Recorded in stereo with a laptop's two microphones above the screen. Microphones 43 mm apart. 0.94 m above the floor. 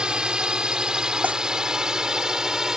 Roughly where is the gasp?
I don't hear a gasp.